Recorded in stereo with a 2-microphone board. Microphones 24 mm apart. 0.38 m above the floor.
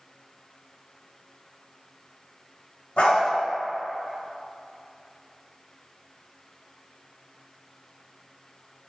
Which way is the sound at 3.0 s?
55° left (ahead or behind).